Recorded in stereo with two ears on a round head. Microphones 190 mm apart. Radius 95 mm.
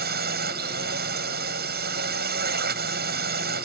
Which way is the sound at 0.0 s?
45° right (ahead or behind).